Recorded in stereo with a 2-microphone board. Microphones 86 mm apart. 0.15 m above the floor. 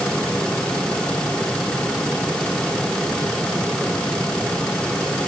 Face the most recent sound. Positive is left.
No sound to turn to.